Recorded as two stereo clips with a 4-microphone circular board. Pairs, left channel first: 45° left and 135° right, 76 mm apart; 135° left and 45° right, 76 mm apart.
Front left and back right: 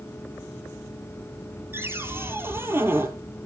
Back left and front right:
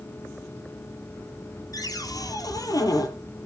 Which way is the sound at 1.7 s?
170° left.